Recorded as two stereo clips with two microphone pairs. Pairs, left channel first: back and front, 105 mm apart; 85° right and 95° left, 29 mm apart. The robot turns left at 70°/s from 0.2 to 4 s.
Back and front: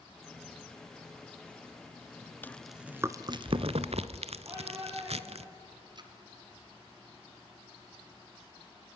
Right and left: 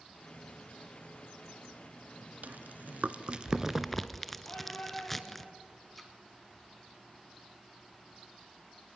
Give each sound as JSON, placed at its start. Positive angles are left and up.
{"t": 2.4, "sound": "chewing", "azimuth_deg": 110, "distance_m": 0.6}
{"t": 4.5, "sound": "a shout", "azimuth_deg": -60, "distance_m": 6.0}
{"t": 6.0, "sound": "a splash", "azimuth_deg": 0, "distance_m": 1.6}